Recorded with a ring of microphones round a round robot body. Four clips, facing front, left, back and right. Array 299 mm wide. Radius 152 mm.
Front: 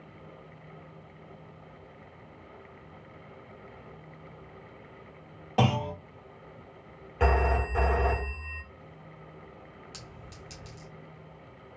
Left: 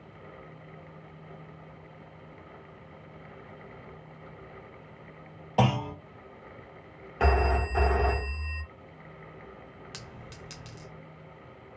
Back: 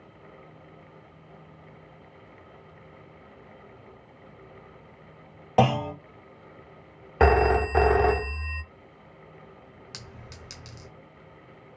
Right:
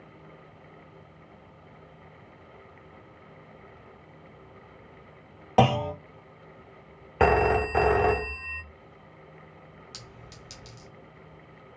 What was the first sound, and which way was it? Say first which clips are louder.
A clunk: right 5 dB, back 5 dB; 115° right.